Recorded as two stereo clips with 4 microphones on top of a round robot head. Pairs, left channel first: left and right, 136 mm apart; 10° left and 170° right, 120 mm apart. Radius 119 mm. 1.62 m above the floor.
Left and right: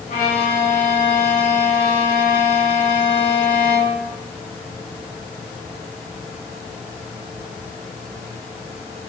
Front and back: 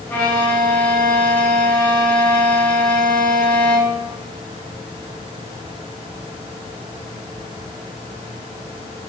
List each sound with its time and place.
0.1 s a violin: 85° left, 1.1 m